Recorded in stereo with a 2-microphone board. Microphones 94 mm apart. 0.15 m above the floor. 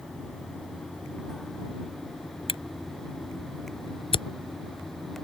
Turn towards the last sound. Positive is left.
turn(degrees=65)  # may be behind; listen again after turning